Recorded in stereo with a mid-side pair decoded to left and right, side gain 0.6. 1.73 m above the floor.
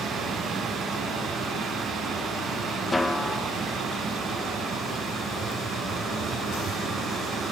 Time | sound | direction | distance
0.0 | running water | 40° right | 7.5 m
2.9 | a snare drum | 5° left | 0.6 m